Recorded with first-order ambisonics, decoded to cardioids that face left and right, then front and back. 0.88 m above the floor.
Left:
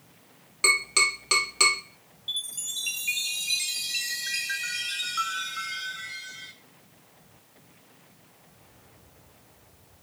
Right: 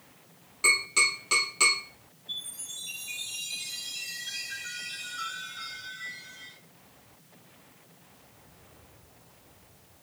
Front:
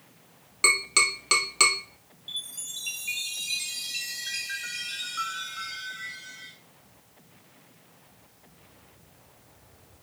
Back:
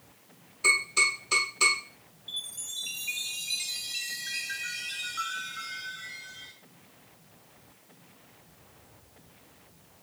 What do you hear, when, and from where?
0.6 s tapping: 20° left, 2 m
2.3 s a chime: 80° left, 1.0 m